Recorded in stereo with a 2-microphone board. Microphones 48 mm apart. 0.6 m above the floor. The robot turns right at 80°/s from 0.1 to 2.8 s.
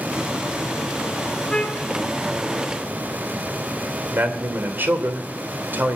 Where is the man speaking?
45° right (ahead or behind), 2.5 m.